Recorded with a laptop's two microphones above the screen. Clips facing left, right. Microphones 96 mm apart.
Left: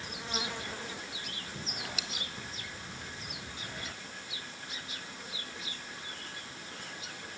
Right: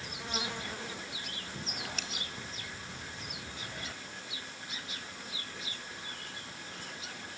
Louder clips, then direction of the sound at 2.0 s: Even; 10° left (ahead or behind).